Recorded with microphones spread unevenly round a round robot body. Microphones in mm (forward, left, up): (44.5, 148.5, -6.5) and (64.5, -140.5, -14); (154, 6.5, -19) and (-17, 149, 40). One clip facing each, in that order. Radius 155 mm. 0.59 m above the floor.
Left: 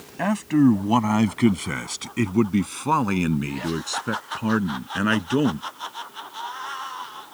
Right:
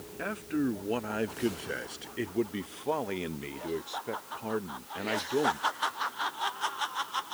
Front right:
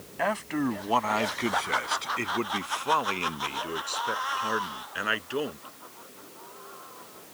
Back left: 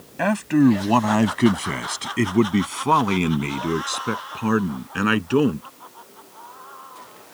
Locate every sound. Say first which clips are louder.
0.2 s a man speaking: left 13 dB, back left 12 dB; 110° left; by 5.7 s 120° left